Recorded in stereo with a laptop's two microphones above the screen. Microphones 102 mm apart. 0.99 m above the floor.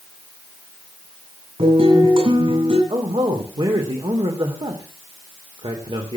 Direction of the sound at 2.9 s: 60° right (ahead or behind).